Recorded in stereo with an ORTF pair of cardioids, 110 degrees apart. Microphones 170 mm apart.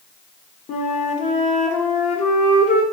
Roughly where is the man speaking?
No man speaking in this recording.